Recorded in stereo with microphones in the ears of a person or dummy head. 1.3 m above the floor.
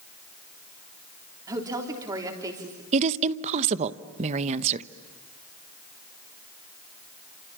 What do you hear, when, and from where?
1.5 s a woman speaking: 20° right (ahead or behind), 3.5 m
2.9 s a woman speaking: 35° right (ahead or behind), 0.9 m